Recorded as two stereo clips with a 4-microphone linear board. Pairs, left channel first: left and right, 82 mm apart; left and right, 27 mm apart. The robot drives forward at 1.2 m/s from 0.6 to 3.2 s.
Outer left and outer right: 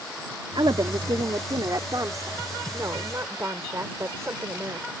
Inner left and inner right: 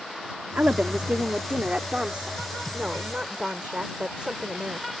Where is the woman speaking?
70° right (ahead or behind); by 5.0 s 35° right (ahead or behind).